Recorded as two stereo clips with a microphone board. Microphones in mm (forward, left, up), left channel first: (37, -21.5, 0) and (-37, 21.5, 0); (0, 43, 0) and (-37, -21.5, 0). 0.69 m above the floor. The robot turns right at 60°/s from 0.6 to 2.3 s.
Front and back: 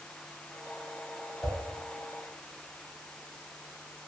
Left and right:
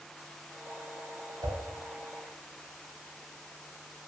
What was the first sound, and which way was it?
A whoosh, 115° right.